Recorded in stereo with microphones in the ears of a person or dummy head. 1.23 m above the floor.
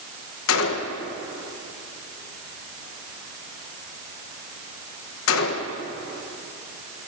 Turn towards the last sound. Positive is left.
turn(degrees=75)  # may be behind; listen again after turning